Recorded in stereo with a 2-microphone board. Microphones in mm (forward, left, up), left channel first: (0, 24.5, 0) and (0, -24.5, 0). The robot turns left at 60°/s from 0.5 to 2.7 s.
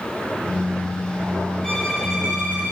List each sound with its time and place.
1.6 s a violin: 15° left, 2 m; by 2.7 s 50° right, 2 m